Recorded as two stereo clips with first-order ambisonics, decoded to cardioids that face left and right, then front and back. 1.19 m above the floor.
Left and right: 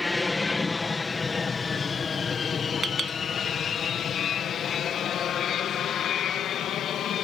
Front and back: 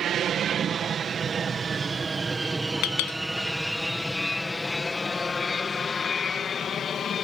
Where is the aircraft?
160° left; by 7.2 s 55° left.